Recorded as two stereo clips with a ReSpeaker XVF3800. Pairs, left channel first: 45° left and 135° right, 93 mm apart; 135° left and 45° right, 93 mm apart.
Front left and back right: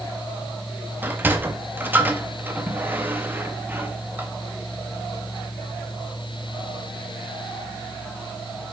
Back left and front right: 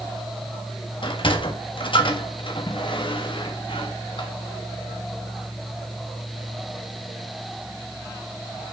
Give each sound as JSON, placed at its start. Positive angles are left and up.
{"t": 1.0, "sound": "a sliding door", "azimuth_deg": 155, "distance_m": 1.4}